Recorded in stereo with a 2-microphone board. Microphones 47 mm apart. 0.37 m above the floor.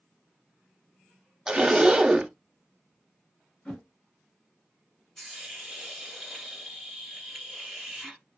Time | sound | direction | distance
1.5 | a zipper | 15° right (ahead or behind) | 0.5 m
3.6 | a whoosh | 15° left (ahead or behind) | 1.4 m
5.2 | a hiss | 5° left (ahead or behind) | 1.0 m